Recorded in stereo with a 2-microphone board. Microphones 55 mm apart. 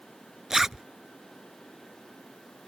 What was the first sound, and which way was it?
A zipper, 5° right (ahead or behind).